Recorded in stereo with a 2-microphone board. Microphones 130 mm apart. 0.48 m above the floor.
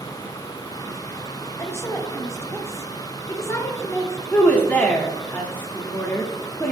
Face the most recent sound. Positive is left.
turn(degrees=15)  # may be behind; listen again after turning